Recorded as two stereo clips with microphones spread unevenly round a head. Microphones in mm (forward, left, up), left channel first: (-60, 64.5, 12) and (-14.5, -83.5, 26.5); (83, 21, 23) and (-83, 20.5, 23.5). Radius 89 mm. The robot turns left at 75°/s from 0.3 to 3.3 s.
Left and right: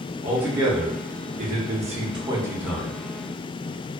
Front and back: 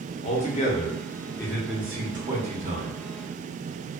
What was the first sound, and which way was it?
A man speaking, 15° left.